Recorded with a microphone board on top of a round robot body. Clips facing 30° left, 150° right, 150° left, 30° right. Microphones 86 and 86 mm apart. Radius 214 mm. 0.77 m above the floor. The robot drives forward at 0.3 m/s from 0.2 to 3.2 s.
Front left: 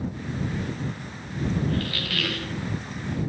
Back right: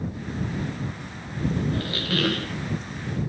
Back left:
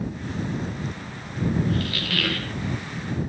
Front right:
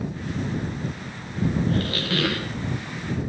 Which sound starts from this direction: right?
A squeak, at 1.7 s.